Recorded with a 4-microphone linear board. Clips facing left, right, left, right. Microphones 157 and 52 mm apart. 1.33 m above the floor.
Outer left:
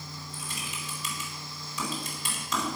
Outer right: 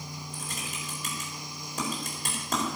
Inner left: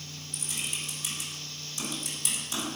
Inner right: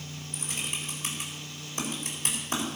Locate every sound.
0.3 s typing on a keyboard: 50° right (ahead or behind), 4 m